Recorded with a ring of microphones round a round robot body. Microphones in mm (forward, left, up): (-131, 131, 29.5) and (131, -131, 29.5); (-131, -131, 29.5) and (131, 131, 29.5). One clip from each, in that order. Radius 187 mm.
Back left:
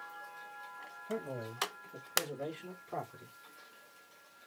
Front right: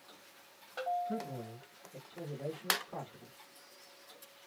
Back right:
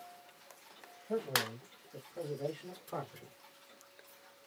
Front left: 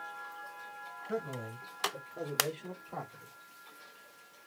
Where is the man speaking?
105° left, 2.5 m; by 3.3 s straight behind, 1.8 m.